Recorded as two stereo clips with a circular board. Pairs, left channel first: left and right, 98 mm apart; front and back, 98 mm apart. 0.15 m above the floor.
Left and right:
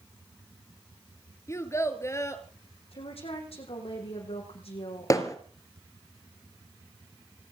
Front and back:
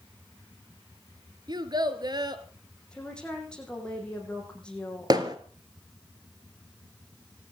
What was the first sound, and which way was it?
A child speaking, 145° left.